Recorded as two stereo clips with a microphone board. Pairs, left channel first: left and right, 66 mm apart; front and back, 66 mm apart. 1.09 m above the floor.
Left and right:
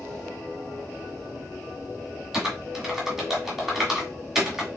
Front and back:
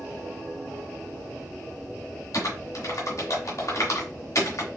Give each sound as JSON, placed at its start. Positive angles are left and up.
{"t": 2.3, "sound": "typing on a keyboard", "azimuth_deg": -10, "distance_m": 1.5}